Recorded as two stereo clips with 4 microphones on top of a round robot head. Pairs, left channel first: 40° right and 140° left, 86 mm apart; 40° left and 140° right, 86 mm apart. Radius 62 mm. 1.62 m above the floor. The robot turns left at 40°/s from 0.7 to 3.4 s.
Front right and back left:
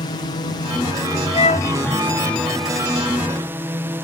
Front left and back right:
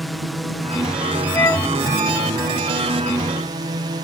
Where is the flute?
15° right; by 1.7 s 30° right.